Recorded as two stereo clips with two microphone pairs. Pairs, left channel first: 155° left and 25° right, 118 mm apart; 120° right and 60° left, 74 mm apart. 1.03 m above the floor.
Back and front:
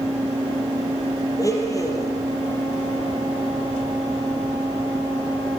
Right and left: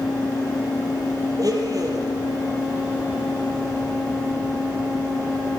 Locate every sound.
1.4 s a blender: 95° left, 4.5 m